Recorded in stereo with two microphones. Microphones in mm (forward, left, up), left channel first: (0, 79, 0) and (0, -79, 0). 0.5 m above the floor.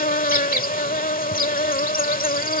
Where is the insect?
65° left (ahead or behind).